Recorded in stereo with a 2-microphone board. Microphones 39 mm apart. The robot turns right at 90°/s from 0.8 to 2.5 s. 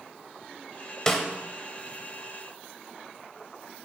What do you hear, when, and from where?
1.1 s a snare drum: 15° left (ahead or behind), 0.8 m; by 1.2 s centre (ahead or behind), 0.8 m